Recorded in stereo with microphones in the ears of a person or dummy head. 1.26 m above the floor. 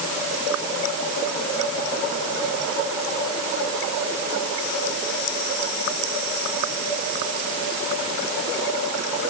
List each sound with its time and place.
Only background noise.